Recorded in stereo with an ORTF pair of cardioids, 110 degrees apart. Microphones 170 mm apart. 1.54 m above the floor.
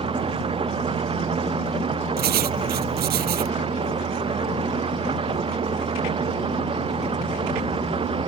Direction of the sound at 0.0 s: 30° right.